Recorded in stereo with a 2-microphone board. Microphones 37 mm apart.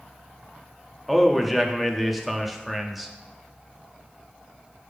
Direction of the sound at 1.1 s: Centre (ahead or behind).